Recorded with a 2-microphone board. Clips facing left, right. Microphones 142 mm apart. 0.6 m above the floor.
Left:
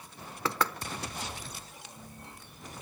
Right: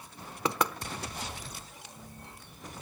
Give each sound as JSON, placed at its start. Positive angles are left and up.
{"t": 0.5, "sound": "knocking", "side_deg": -15, "distance_m": 0.9}